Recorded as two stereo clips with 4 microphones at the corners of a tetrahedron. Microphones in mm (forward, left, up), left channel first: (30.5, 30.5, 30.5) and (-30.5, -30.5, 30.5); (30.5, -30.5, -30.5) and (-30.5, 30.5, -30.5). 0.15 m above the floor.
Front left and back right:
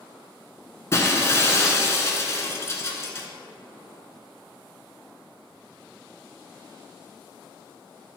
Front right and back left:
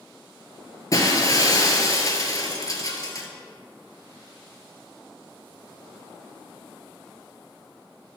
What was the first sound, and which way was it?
Breaking glass, 5° right.